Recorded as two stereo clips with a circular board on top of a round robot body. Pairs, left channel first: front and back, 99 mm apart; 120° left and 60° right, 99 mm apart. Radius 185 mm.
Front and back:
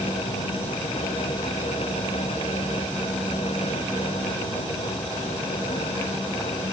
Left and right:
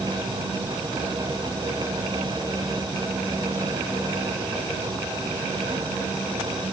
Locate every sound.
Only background noise.